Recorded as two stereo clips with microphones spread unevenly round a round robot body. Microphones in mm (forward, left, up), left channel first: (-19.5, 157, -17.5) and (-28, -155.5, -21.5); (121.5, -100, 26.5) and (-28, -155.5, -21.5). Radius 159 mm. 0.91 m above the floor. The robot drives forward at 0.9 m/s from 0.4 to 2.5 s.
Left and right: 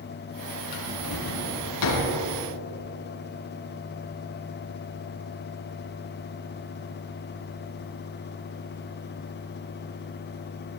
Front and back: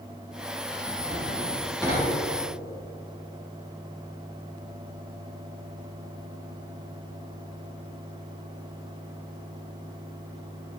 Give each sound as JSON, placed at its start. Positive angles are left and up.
{"t": 0.7, "sound": "a drawer", "azimuth_deg": 95, "distance_m": 4.0}